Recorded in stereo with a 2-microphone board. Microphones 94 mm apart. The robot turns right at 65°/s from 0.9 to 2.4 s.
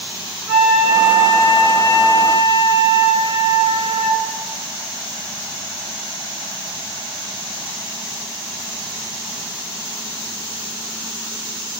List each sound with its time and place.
0.5 s a flute: 130° right, 1.7 m; by 4.2 s 30° right, 1.7 m